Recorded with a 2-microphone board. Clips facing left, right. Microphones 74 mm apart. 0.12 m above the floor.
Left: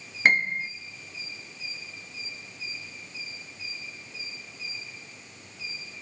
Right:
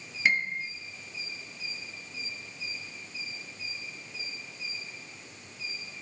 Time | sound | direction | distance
0.2 | a piano | 50° left (ahead or behind) | 0.5 m